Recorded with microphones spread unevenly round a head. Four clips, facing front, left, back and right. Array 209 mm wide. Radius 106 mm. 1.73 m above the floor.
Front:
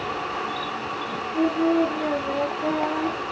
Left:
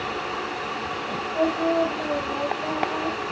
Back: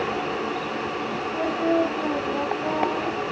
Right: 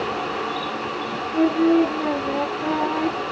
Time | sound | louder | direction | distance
1.3 | singing | right 5 dB, front 2 dB | 70° right | 1.0 m